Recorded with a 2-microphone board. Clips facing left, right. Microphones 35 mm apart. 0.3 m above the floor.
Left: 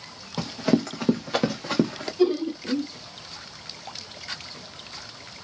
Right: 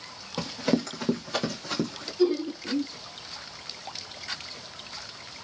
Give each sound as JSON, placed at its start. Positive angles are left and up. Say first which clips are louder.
{"t": 0.4, "sound": "running footsteps", "louder": "left 3 dB", "side_deg": 0, "distance_m": 1.2}
{"t": 2.2, "sound": "laughter", "louder": "left 2 dB", "side_deg": 20, "distance_m": 0.9}